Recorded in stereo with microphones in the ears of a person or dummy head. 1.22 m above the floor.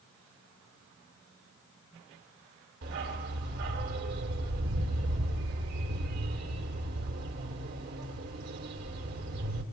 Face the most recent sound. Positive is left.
turn(degrees=-60)  # may be behind; listen again after turning